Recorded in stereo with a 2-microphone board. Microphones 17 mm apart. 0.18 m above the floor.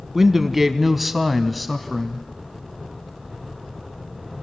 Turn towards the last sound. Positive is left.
turn(degrees=15)  # may be behind; listen again after turning